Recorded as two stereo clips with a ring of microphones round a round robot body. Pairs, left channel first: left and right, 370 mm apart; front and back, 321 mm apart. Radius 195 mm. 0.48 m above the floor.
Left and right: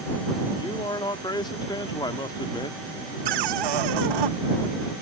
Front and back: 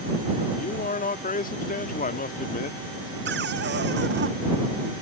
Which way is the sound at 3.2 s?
115° right.